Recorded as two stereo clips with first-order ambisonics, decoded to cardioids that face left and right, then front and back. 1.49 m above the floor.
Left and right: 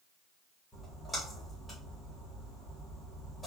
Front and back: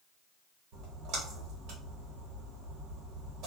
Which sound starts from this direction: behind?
A splash, at 0.7 s.